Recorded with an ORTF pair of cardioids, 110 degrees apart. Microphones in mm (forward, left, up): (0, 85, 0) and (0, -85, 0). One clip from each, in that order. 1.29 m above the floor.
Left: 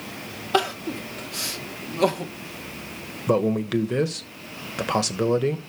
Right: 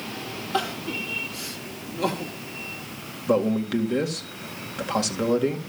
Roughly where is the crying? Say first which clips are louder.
Left 4 dB; ahead left.